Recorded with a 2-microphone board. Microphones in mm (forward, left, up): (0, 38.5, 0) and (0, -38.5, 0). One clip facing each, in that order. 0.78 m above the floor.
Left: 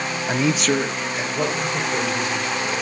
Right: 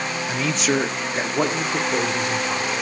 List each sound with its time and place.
0.3 s a man speaking: 40° left (ahead or behind), 0.5 m; by 2.7 s 55° right (ahead or behind), 3 m